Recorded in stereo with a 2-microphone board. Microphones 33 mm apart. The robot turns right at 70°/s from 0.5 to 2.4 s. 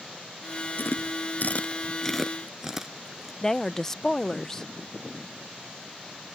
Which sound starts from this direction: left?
Chewing, at 0.8 s.